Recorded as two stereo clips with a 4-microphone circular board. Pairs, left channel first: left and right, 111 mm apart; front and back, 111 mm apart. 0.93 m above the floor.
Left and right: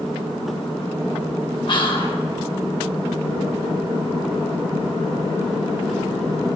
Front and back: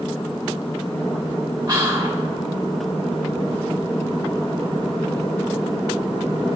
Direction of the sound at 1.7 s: 130° left.